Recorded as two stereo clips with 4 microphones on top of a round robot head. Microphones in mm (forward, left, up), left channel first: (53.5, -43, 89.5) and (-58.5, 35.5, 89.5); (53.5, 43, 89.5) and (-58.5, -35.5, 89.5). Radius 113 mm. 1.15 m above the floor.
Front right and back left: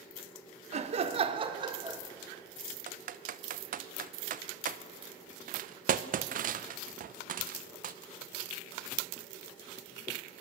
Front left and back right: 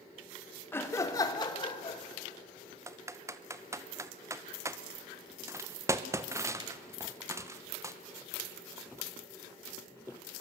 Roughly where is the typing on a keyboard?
Behind left.